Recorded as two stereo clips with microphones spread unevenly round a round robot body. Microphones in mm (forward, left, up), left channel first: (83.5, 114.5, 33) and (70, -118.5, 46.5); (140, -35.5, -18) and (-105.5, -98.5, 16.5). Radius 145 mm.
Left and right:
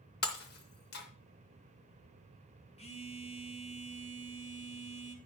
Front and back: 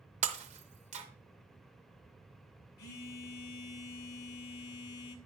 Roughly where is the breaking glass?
Behind left.